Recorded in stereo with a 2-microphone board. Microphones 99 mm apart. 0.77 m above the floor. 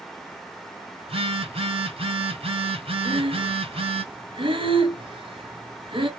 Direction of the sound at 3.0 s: 50° right (ahead or behind).